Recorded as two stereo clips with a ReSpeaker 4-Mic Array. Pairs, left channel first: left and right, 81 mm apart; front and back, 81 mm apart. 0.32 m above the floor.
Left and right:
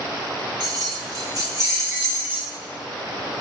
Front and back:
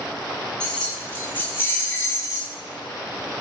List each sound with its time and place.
0.6 s keys jangling: 80° right, 1.4 m; by 2.5 s 25° right, 1.1 m